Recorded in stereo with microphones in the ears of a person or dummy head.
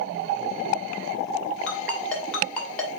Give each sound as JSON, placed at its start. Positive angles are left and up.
{"t": 1.7, "sound": "a ringtone", "side_deg": 5, "distance_m": 2.5}